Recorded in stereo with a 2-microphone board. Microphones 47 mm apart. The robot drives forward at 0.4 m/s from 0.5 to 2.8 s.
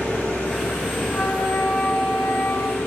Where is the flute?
60° left (ahead or behind), 1.9 m; by 2.9 s 50° left (ahead or behind), 2 m.